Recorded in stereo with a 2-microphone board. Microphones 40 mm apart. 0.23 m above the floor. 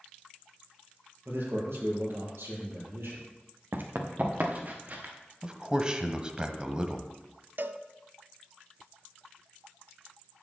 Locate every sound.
1.2 s a man speaking: 75° right (ahead or behind), 4.5 m; by 3.3 s 80° right, 6 m
3.7 s running footsteps: 60° right (ahead or behind), 1.9 m; by 5.1 s 45° right (ahead or behind), 4 m
5.4 s a man speaking: 20° right (ahead or behind), 1.1 m
7.6 s a cowbell: 60° right (ahead or behind), 0.6 m